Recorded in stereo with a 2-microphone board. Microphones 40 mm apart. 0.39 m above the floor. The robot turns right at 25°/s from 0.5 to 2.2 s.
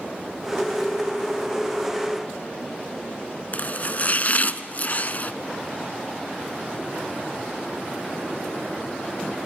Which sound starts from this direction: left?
Chopping, at 3.5 s.